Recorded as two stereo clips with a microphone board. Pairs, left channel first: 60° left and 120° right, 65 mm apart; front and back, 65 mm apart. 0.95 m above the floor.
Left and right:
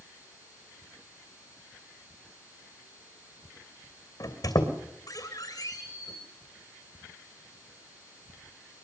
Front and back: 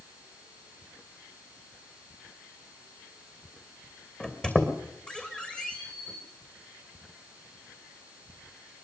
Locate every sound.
4.2 s a squeak: 70° left, 2.5 m